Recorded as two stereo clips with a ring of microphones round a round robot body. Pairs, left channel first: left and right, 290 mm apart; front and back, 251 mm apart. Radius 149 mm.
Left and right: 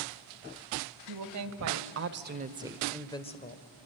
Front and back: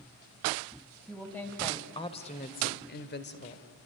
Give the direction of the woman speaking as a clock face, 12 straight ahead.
3 o'clock.